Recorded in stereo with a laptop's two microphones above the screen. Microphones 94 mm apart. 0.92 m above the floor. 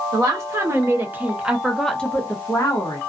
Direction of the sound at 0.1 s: 35° right (ahead or behind).